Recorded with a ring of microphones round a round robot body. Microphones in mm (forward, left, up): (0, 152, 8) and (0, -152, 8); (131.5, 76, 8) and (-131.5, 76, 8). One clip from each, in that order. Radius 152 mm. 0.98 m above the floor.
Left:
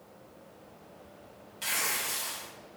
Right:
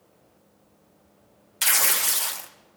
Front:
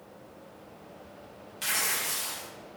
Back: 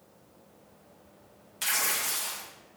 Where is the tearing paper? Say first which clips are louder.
Right 8 dB, back 1 dB; 105° right, 0.5 m.